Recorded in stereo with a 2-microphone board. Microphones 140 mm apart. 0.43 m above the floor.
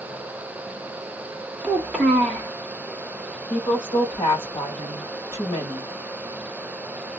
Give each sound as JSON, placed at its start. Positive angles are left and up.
{"t": 1.6, "sound": "a child speaking", "side_deg": -10, "distance_m": 0.6}
{"t": 3.5, "sound": "a woman speaking", "side_deg": 45, "distance_m": 1.6}